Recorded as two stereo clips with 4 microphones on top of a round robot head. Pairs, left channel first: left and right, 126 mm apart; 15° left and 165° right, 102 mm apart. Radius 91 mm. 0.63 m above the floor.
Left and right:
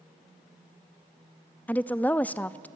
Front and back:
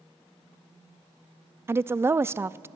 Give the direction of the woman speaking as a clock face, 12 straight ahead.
7 o'clock.